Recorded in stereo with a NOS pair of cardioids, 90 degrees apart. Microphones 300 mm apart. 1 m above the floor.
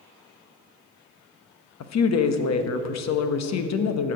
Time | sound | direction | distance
1.8 | a woman speaking | 60° left | 1.1 m